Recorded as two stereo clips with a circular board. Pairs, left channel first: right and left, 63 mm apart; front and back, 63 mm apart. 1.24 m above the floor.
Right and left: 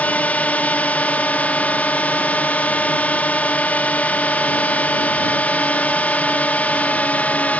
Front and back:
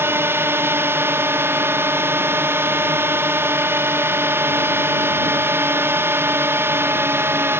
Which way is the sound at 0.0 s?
150° right.